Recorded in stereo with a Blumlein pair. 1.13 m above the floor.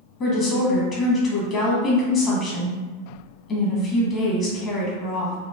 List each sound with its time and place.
0.2 s a woman speaking: 30° left, 0.9 m